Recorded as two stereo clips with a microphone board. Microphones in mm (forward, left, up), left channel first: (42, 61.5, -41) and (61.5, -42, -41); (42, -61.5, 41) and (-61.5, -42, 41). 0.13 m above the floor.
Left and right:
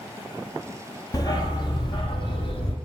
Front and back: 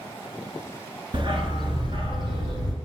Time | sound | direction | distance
1.1 | a dog barking | 145° left | 0.8 m